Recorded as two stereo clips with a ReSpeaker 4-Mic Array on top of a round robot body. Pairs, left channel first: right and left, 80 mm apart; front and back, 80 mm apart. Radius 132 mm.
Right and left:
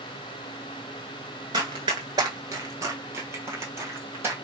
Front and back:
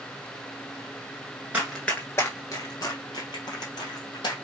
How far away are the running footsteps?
About 0.7 m.